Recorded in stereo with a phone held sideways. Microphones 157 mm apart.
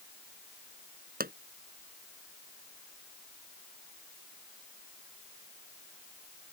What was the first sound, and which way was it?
A pop, 75° right (ahead or behind).